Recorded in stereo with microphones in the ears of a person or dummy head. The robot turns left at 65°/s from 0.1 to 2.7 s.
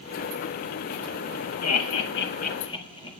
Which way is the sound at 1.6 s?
80° left.